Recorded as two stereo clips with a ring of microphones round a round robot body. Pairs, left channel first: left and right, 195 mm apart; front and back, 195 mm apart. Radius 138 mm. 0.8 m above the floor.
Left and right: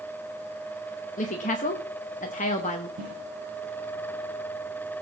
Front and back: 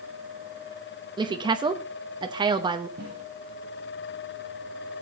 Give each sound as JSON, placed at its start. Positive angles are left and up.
{"t": 1.2, "sound": "a woman speaking", "azimuth_deg": 125, "distance_m": 0.9}
{"t": 3.0, "sound": "a snare drum", "azimuth_deg": -125, "distance_m": 5.5}